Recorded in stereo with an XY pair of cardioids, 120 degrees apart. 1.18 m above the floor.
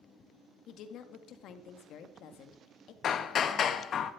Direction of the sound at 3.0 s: 50° left.